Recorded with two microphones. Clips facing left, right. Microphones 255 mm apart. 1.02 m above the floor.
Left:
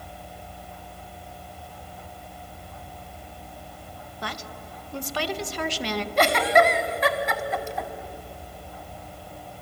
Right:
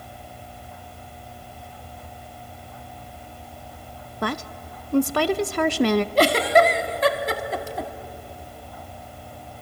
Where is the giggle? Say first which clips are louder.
Left 1 dB; 40° right (ahead or behind), 1.1 m.